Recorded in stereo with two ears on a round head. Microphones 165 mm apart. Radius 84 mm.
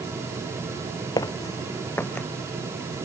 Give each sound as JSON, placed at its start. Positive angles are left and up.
{"t": 1.2, "sound": "footsteps", "side_deg": 20}